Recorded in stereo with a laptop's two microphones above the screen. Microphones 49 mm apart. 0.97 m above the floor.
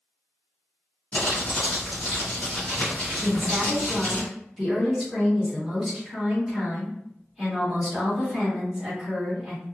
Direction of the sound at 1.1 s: 25° left (ahead or behind).